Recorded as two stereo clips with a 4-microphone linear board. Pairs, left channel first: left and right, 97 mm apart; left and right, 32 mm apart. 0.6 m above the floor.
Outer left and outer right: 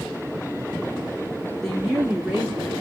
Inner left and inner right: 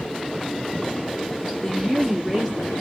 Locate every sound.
1.6 s a woman speaking: 10° left (ahead or behind), 0.9 m; by 2.7 s 25° right (ahead or behind), 1.2 m